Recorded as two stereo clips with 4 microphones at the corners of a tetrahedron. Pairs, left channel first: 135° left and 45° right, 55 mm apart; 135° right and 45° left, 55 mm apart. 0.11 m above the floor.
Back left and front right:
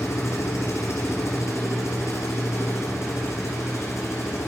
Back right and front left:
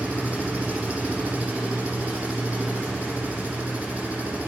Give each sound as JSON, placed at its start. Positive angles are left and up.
{"t": 0.0, "sound": "an engine running", "azimuth_deg": 105, "distance_m": 5.0}